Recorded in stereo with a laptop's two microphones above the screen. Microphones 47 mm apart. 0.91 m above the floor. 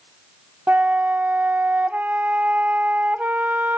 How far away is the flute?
About 0.9 m.